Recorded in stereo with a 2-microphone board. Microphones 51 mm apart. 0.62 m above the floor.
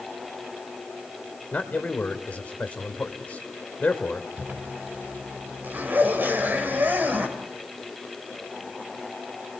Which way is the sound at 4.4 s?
45° right (ahead or behind).